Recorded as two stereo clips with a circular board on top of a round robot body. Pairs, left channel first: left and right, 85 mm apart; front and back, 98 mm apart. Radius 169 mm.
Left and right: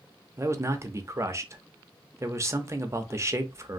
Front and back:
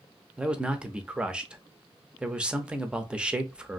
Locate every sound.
0.4 s a man speaking: 110° right, 0.8 m